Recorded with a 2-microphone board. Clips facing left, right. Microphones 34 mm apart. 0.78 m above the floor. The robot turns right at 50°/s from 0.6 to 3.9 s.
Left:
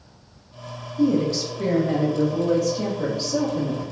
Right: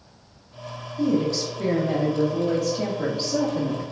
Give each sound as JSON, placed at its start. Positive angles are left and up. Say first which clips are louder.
{"t": 1.0, "sound": "a woman speaking", "louder": "left 2 dB", "side_deg": 10, "distance_m": 0.8}